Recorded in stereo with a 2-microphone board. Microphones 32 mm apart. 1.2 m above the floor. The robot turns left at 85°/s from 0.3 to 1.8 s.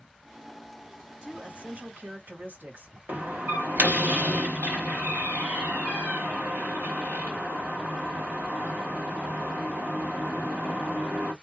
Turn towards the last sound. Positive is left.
turn(degrees=-75)  # may be behind; listen again after turning